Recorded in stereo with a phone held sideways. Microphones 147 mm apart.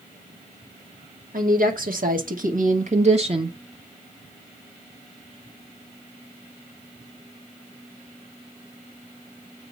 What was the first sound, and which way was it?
A woman speaking, 70° right (ahead or behind).